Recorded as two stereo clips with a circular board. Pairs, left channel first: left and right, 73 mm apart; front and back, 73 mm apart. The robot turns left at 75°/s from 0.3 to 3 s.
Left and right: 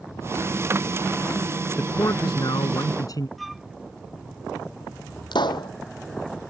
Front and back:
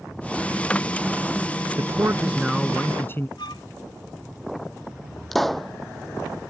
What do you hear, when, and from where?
1.8 s a man speaking: 150° left; by 3.3 s 60° left
3.4 s a flute: straight ahead
5.3 s a pop: 85° left